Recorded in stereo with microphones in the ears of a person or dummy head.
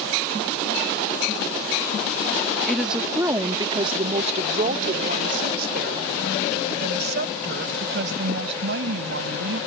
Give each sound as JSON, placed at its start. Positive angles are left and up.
{"t": 2.7, "sound": "a woman speaking", "side_deg": 5}